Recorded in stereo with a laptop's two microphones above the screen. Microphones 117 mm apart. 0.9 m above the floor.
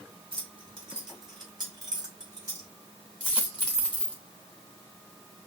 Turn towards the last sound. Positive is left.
turn(degrees=-40)  # may be behind; listen again after turning